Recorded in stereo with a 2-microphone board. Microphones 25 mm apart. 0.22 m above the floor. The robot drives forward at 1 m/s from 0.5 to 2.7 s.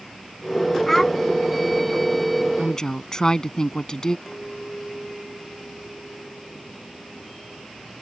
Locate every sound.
0.9 s a child speaking: 5° left (ahead or behind); by 1.1 s 10° left (ahead or behind)
2.6 s a woman speaking: 25° left (ahead or behind)
4.3 s a clink: 5° left (ahead or behind)